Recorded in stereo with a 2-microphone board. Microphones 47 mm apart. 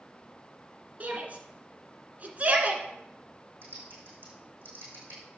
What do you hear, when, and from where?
1.0 s a shout: 35° right (ahead or behind), 1.8 m
3.6 s typing on a keyboard: 45° right (ahead or behind), 5 m